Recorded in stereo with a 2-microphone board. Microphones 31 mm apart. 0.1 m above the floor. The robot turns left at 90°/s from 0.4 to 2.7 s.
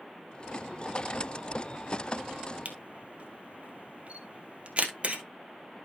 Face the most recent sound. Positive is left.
turn(degrees=-40)  # may be behind; listen again after turning